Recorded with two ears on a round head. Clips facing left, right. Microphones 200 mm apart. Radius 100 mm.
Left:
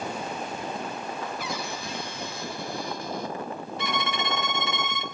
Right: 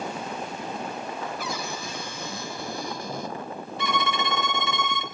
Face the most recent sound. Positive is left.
turn(degrees=-80)